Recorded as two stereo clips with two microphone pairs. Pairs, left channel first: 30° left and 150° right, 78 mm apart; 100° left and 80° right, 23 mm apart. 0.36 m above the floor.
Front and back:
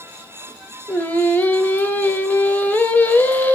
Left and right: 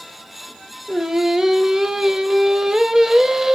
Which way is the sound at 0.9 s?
25° right.